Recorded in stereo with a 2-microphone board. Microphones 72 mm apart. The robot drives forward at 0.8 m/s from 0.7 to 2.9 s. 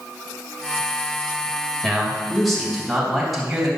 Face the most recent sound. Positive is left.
turn(degrees=0)  # may be behind; listen again after turning